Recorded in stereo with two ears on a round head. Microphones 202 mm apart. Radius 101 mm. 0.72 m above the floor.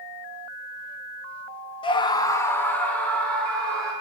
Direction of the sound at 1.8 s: 25° left (ahead or behind).